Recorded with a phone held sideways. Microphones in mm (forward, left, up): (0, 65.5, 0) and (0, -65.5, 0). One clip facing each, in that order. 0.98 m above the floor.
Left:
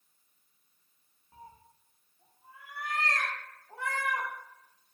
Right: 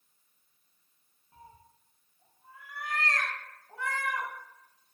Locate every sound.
1.3 s a cat meowing: 20° left (ahead or behind), 0.6 m